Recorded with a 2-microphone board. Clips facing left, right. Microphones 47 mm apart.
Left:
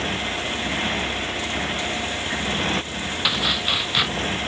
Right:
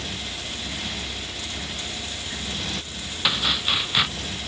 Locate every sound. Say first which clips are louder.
0.0 s a motorcycle: left 8 dB; 40° left (ahead or behind)
3.2 s chopping: even; 5° left (ahead or behind)